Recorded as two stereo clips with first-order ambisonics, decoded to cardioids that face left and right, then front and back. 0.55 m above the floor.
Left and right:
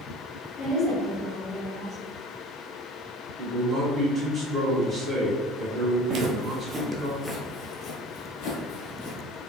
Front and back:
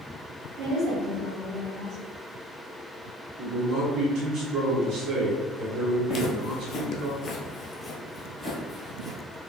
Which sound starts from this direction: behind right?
A man speaking, at 3.4 s.